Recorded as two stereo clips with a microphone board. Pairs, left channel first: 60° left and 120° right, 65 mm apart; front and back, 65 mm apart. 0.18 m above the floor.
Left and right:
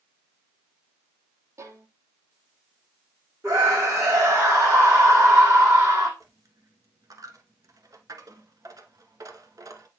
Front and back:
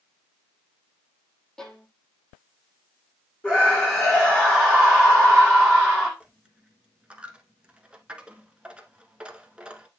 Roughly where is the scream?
Right.